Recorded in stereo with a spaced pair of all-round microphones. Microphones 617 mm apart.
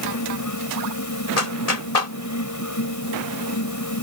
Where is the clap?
80° left.